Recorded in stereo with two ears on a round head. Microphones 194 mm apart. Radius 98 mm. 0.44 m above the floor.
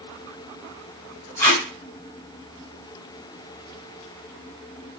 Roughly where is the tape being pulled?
Centre.